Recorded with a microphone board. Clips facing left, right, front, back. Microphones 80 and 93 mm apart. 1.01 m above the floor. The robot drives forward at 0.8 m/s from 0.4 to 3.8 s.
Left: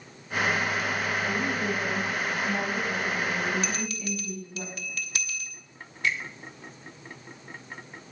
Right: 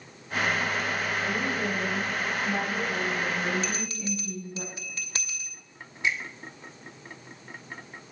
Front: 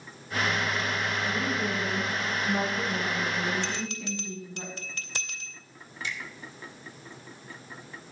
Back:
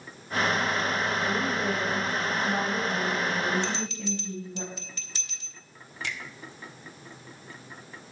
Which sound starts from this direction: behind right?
A woman speaking, at 1.2 s.